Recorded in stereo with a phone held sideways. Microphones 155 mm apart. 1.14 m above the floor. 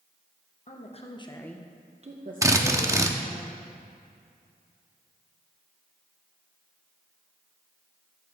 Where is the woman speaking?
50° left (ahead or behind), 1.4 m; by 3.4 s 75° right (ahead or behind), 2 m.